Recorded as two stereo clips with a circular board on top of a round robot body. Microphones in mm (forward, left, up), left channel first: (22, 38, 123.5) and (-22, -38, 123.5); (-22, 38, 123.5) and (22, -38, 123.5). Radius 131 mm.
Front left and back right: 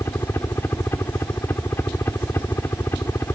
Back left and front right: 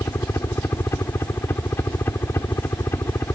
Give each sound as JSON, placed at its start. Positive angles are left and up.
{"t": 0.0, "sound": "a helicopter", "azimuth_deg": 90}